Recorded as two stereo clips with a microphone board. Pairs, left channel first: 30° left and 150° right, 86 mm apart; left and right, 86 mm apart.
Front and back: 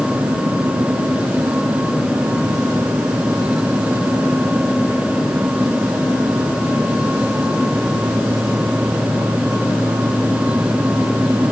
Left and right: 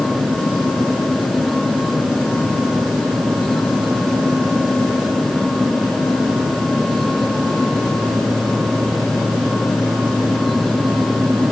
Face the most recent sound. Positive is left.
No sound to turn to.